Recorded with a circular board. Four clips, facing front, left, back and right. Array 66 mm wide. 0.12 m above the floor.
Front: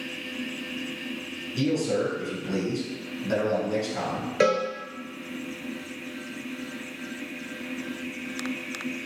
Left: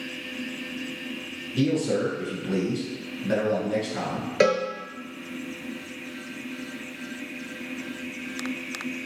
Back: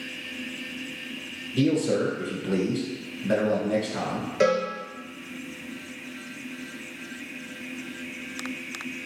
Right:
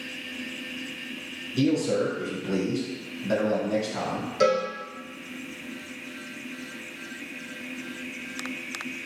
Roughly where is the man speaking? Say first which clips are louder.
Even, back 2 dB; behind left.